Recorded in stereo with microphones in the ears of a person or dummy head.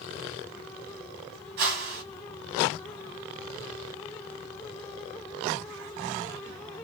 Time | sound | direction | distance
1.6 | a whoosh | 50° right (ahead or behind) | 1.2 m